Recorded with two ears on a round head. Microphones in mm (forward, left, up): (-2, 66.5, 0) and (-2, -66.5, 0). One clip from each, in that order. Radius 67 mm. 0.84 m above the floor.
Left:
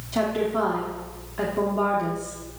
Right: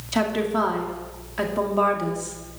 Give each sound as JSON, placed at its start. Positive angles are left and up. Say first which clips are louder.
{"t": 0.1, "sound": "a woman speaking", "louder": "right 1 dB", "side_deg": -60, "distance_m": 2.5}